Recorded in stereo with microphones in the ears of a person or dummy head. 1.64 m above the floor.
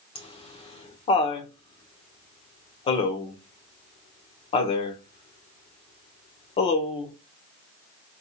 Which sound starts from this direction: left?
Laughter, at 0.1 s.